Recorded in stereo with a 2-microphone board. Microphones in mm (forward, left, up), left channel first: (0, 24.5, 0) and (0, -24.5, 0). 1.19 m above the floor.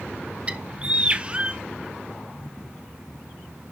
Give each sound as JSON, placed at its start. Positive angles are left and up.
{"t": 0.5, "sound": "a bird", "side_deg": -25, "distance_m": 0.6}